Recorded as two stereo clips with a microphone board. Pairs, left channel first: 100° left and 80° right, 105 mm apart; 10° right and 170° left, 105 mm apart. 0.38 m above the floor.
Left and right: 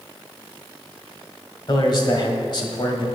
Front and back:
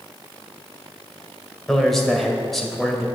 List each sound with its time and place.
1.7 s a man speaking: 75° left, 1.9 m